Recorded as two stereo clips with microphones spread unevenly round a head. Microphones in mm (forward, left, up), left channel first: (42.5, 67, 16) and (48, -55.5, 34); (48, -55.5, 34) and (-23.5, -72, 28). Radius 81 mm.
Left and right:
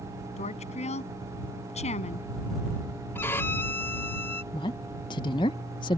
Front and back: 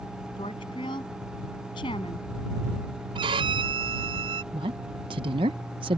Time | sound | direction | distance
0.4 | a woman speaking | 60° left | ?
3.1 | a violin | 170° left | ?
4.5 | a woman speaking | 160° left | ?